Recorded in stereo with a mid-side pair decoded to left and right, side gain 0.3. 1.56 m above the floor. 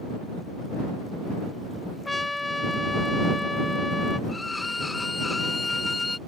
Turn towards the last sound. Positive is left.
turn(degrees=30)